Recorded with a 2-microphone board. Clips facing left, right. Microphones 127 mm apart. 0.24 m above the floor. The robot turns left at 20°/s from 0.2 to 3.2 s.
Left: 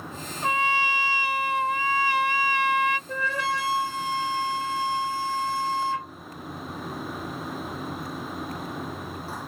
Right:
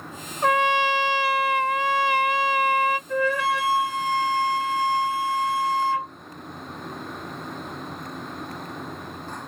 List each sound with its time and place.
0.4 s a trumpet: 80° right, 0.6 m; by 3.0 s 130° right, 0.6 m
3.1 s a flute: 35° left (ahead or behind), 1.3 m